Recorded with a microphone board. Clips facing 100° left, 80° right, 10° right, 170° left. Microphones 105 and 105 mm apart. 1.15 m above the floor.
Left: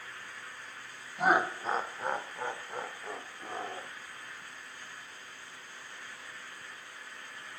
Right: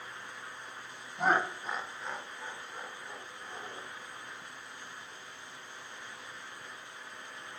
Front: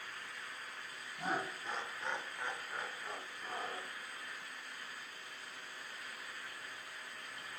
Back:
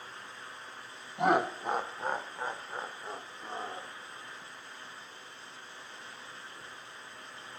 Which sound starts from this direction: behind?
Laughter, at 1.2 s.